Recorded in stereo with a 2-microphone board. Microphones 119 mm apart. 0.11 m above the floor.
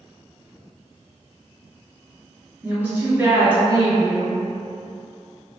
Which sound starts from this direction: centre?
A woman speaking, at 2.6 s.